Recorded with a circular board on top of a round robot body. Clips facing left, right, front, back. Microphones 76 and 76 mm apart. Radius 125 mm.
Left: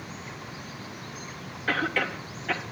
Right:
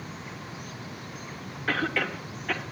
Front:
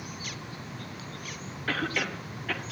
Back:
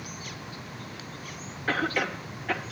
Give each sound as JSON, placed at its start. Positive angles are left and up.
{"t": 1.7, "sound": "a cough", "azimuth_deg": 180, "distance_m": 1.3}